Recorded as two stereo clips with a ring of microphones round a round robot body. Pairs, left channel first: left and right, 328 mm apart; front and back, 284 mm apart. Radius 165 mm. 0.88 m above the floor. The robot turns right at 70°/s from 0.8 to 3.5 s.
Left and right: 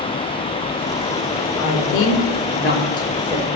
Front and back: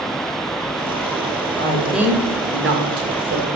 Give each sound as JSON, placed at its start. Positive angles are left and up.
{"t": 1.6, "sound": "a woman speaking", "azimuth_deg": 65, "distance_m": 1.3}